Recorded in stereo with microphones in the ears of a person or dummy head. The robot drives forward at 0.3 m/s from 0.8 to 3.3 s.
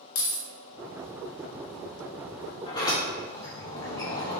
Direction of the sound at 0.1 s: 75° left (ahead or behind).